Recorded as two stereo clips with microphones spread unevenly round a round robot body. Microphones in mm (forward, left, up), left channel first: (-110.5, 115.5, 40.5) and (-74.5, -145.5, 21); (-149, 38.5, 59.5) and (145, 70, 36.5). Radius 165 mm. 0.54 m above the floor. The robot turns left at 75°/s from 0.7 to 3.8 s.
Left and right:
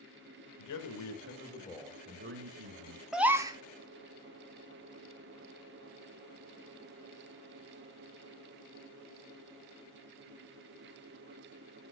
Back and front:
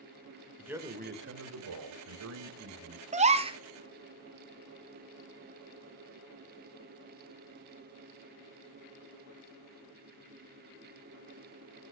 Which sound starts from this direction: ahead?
A gasp, at 3.1 s.